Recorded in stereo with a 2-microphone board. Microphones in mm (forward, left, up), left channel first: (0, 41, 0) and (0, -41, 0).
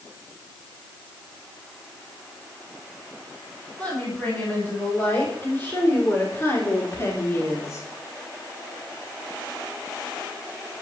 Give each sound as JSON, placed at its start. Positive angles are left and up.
{"t": 3.8, "sound": "a woman speaking", "side_deg": 20, "distance_m": 7.0}